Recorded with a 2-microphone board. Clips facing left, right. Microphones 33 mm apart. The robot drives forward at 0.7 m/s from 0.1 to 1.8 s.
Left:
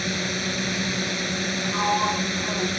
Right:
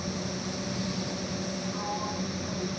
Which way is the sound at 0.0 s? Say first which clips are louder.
Left 8 dB; 75° left (ahead or behind).